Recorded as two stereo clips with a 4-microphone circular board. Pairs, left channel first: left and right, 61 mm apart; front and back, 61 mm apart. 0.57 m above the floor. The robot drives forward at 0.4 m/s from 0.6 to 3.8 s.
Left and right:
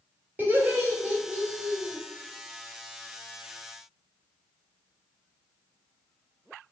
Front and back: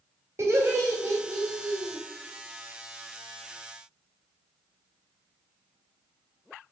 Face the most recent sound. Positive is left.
turn(degrees=-160)